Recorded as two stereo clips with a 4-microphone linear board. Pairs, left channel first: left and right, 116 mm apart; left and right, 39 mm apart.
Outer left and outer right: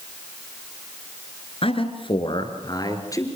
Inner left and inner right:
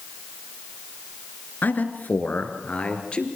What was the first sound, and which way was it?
A man speaking, 55° left (ahead or behind).